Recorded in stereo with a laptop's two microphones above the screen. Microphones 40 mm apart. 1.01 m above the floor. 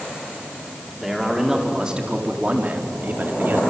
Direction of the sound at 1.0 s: 5° right (ahead or behind).